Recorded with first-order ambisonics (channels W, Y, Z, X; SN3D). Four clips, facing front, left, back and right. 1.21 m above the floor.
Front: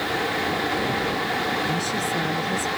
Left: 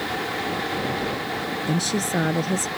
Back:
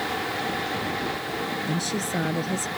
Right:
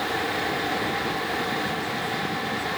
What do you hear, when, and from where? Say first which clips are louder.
1.7 s a woman speaking: left 3 dB, front 3 dB; 95° left